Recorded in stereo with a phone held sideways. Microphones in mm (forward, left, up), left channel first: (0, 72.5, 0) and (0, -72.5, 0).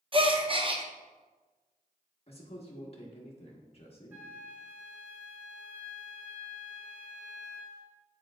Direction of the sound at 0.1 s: 35° right (ahead or behind).